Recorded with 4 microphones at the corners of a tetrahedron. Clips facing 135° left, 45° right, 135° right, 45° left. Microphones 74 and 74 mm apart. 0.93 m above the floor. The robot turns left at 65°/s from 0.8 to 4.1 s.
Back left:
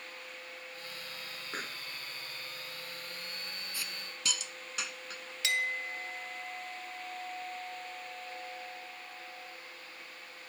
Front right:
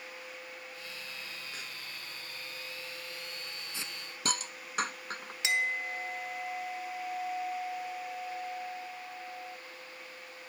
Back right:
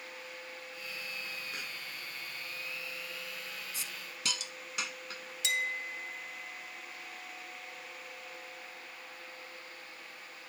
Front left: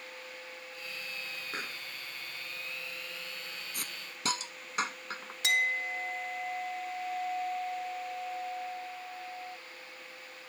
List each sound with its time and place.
1.5 s a pop: 95° left; by 1.8 s 75° left
3.7 s a hiss: 20° left; by 5.3 s straight ahead
5.4 s a clink: 20° left